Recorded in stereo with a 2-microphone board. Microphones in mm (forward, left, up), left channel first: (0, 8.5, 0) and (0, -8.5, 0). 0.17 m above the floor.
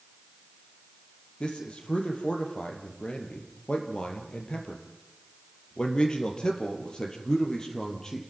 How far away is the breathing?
I don't hear breathing.